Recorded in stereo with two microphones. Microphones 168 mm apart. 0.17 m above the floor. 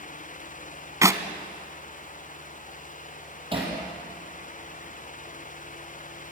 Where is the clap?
20° right (ahead or behind), 1.0 m.